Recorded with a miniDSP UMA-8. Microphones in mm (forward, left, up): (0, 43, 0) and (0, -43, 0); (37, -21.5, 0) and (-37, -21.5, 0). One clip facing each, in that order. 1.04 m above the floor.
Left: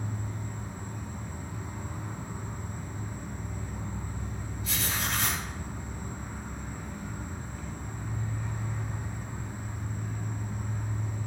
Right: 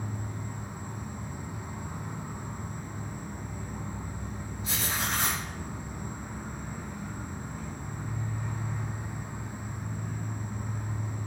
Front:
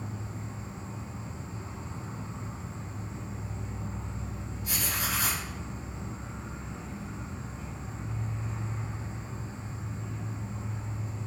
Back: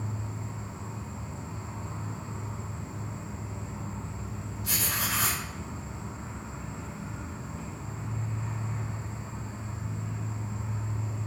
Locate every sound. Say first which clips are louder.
0.0 s an insect: even, back 2 dB; 165° right, 1.2 m
4.6 s writing: right 1 dB, back 1 dB; 155° right, 1.4 m